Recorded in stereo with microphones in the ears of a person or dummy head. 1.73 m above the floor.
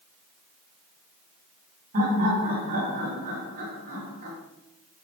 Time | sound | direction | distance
1.9 | laughter | 40° right (ahead or behind) | 1.0 m